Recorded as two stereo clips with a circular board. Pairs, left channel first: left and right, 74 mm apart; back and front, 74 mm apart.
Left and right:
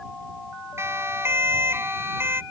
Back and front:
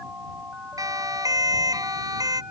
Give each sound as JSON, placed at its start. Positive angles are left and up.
{"t": 0.8, "sound": "a siren", "azimuth_deg": -35}